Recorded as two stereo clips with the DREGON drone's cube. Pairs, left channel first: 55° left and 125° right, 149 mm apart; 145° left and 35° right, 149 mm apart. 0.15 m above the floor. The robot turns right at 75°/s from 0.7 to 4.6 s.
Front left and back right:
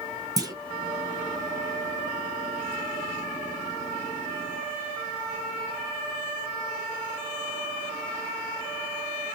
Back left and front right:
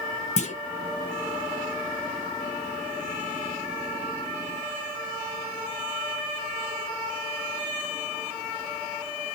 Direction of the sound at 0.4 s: 175° left.